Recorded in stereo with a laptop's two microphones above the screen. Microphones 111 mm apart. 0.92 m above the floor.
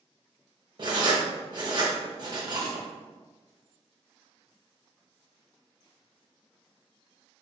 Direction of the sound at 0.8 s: 40° right (ahead or behind).